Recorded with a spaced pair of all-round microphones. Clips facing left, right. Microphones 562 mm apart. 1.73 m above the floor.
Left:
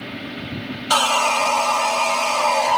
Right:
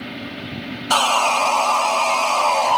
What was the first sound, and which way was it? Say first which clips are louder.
Sawing: right 1 dB; 45° left (ahead or behind).